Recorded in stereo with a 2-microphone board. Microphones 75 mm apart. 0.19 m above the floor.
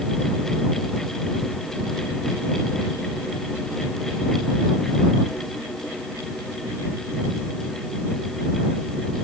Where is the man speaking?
No man speaking in this recording.